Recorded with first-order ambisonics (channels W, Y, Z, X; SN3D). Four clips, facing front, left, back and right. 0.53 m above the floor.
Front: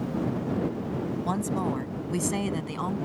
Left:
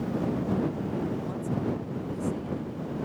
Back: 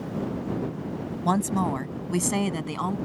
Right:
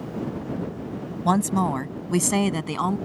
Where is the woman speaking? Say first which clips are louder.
Right 9 dB, back 6 dB; 110° right; by 3.0 s 100° right.